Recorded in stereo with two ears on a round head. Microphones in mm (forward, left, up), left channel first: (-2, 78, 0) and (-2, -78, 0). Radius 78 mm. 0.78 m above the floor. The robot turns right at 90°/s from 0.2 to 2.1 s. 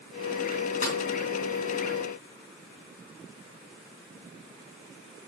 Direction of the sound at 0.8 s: 45° left (ahead or behind).